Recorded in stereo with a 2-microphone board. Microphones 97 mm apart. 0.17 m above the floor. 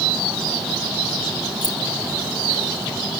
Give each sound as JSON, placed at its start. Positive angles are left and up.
{"t": 1.6, "sound": "keys jangling", "side_deg": -45, "distance_m": 2.5}